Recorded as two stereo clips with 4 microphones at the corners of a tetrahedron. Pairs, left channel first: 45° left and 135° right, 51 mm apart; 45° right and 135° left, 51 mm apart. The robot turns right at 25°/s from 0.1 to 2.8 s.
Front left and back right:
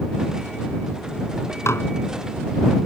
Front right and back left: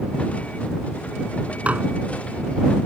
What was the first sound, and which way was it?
Dishes clattering, 70° left.